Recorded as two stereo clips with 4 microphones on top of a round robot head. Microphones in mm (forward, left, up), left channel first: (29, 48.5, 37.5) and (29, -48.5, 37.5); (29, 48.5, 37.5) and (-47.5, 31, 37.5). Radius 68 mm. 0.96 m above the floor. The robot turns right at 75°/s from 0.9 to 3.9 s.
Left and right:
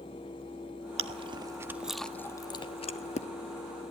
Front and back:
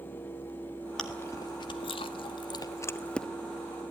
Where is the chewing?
70° right, 1.3 m; by 3.3 s 100° left, 1.3 m.